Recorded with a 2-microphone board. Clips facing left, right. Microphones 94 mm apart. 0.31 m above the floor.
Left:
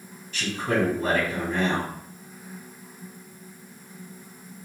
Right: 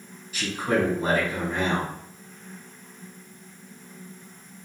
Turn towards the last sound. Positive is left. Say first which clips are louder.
# right 1 dB
turn(degrees=-10)  # may be behind; listen again after turning